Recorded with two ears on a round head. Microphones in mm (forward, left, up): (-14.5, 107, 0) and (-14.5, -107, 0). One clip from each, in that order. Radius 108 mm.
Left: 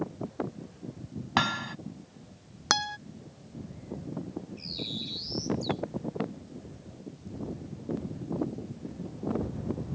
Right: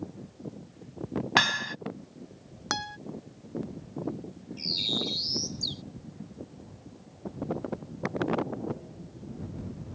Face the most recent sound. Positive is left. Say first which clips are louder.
# right 9 dB
turn(degrees=-40)  # may be behind; listen again after turning